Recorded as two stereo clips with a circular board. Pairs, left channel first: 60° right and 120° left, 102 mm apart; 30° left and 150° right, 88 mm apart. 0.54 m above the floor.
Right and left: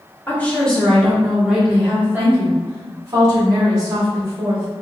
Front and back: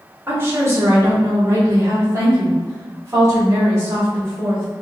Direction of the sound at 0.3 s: 115° right.